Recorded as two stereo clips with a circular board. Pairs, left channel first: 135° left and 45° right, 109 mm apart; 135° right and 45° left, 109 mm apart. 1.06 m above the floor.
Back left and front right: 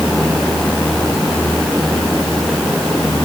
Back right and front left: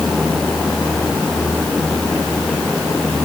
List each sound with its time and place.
Only background noise.